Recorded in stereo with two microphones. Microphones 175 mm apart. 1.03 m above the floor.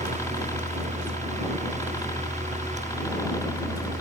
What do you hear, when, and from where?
0.0 s a helicopter: 20° left (ahead or behind)